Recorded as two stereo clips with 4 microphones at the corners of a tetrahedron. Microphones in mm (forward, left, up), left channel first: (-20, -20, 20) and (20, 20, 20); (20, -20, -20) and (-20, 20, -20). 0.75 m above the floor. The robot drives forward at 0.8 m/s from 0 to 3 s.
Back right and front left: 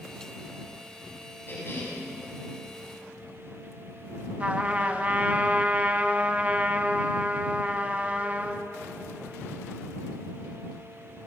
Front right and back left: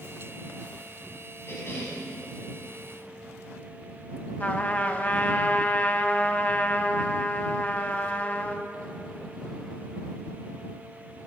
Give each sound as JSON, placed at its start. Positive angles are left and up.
{"t": 1.5, "sound": "a cough", "azimuth_deg": -85, "distance_m": 6.5}
{"t": 4.4, "sound": "a trumpet", "azimuth_deg": -5, "distance_m": 1.3}